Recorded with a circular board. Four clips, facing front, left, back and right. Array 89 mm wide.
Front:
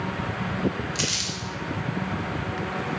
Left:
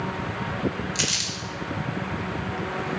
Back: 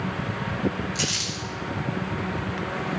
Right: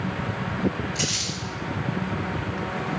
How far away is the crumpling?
About 3 m.